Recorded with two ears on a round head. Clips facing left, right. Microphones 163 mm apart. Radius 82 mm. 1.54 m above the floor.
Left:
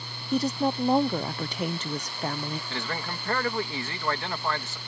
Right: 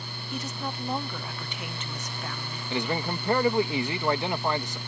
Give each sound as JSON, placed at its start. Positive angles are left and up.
{"t": 0.3, "sound": "a woman speaking", "side_deg": 30}
{"t": 2.7, "sound": "a man speaking", "side_deg": -15}